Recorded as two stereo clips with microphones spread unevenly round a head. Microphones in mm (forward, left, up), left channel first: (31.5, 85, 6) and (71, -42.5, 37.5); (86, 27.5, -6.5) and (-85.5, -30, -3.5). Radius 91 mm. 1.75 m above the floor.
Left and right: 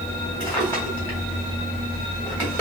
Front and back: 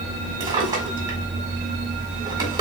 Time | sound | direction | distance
0.4 | a drawer | 155° right | 1.4 m